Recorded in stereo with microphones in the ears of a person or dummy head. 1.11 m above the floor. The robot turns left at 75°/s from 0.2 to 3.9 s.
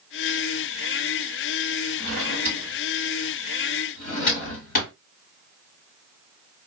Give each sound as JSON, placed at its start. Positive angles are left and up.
{"t": 2.0, "sound": "a drawer", "side_deg": -65, "distance_m": 2.0}